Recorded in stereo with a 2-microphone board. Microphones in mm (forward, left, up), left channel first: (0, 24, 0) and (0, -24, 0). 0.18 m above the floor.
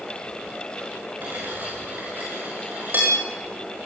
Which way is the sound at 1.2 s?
45° right (ahead or behind).